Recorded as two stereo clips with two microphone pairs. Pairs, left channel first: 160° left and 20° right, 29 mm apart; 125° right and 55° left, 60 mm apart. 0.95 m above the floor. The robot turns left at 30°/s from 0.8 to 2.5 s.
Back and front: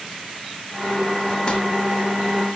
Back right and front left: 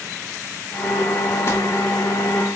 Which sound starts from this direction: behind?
Crumpling, at 1.5 s.